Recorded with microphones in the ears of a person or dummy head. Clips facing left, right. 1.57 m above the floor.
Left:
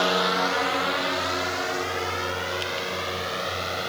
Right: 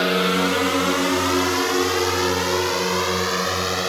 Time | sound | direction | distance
0.0 | a drone | 30° right (ahead or behind) | ?